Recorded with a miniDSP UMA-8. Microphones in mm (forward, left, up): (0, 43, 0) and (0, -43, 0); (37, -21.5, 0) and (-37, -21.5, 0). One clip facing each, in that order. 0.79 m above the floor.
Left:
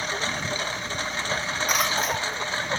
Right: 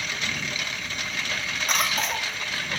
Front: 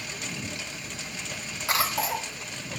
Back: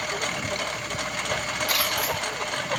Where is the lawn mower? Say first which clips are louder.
Left 3 dB, back 8 dB; 150° left.